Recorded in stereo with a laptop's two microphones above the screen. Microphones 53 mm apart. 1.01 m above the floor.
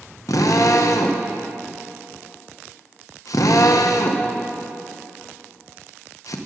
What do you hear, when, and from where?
0.3 s a drill: 85° left, 0.6 m